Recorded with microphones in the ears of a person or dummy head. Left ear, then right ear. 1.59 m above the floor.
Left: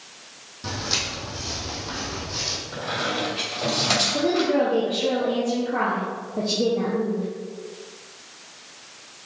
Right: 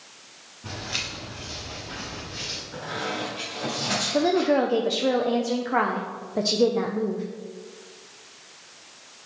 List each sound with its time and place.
0.6 s footsteps: 60° left (ahead or behind), 3 m; by 2.6 s 45° left (ahead or behind), 2.5 m
2.7 s a squeak: 30° left (ahead or behind), 3 m
4.1 s a woman speaking: 55° right (ahead or behind), 0.6 m